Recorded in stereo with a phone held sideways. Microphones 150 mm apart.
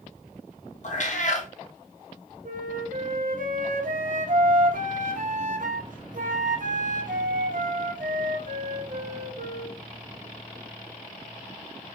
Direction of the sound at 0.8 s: 55° left (ahead or behind).